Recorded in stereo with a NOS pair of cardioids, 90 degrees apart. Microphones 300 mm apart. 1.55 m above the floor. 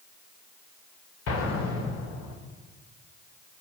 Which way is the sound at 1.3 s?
60° left.